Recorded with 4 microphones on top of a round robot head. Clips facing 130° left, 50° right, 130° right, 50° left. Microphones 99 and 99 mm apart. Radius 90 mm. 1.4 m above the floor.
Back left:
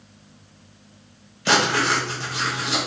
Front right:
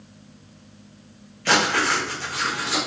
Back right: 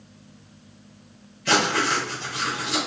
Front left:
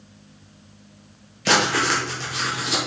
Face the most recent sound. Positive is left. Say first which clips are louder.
# back left 1 dB, front left 1 dB
turn(degrees=60)